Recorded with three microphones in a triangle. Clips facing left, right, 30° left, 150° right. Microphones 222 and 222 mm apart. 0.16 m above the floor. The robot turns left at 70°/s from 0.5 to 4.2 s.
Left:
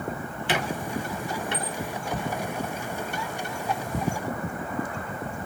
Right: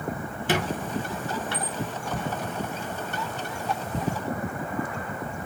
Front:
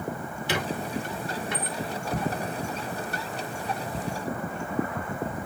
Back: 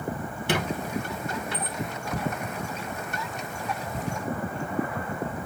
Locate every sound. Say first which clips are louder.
0.5 s a squeak: right 2 dB, back 2 dB; 130° right, 0.9 m; by 1.8 s 140° left, 0.9 m